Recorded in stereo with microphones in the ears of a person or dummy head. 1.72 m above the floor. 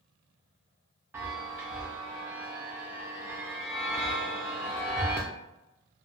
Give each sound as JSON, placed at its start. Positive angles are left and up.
{"t": 1.1, "sound": "a chime", "side_deg": -10, "distance_m": 0.5}